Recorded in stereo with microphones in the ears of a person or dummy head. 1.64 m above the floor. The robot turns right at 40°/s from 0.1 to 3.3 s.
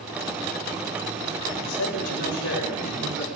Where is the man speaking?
80° left, 8.5 m; by 3.2 s 145° left, 8.5 m.